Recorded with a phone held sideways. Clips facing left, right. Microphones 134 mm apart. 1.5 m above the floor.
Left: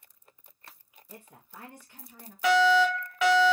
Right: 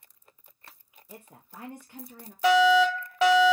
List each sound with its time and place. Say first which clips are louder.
1.1 s a woman speaking: right 2 dB; 10° right (ahead or behind), 0.6 m; by 2.3 s 65° right (ahead or behind), 1.2 m
2.4 s a fire alarm: right 2 dB; 35° right (ahead or behind), 1.4 m